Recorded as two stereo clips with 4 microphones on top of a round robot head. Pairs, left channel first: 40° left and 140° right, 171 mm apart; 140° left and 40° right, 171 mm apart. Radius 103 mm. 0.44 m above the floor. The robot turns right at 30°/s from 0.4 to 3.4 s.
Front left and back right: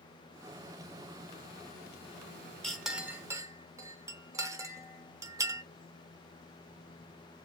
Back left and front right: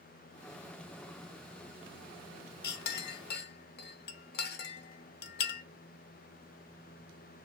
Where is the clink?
125° left, 0.6 m; by 5.6 s 150° left, 0.6 m.